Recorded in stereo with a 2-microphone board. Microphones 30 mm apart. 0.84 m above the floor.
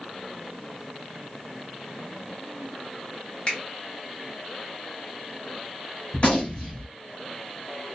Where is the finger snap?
35° left (ahead or behind), 1.1 m.